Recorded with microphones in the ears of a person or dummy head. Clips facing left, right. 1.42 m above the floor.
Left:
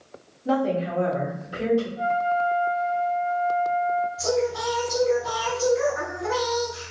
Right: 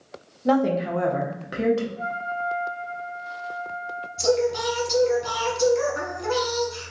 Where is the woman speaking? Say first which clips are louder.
Right 2 dB; 65° right (ahead or behind), 0.9 m; by 1.9 s 75° right (ahead or behind), 1.1 m.